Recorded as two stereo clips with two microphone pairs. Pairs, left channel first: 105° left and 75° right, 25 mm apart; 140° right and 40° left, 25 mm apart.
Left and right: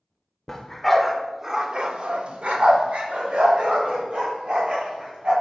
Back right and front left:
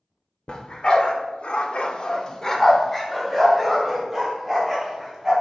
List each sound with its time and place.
0.5 s a dog barking: 175° left, 1.1 m; by 5.3 s 45° right, 2.5 m